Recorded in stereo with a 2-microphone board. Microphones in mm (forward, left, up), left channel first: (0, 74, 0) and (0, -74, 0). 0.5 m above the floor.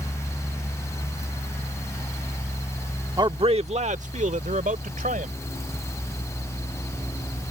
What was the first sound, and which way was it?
A man speaking, 30° right (ahead or behind).